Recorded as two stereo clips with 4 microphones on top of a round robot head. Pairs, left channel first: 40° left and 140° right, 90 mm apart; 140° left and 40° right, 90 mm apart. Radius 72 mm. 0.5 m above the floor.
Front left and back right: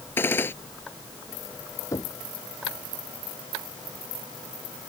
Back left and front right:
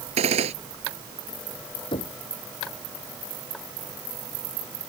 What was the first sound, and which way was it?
A gunshot, 30° right.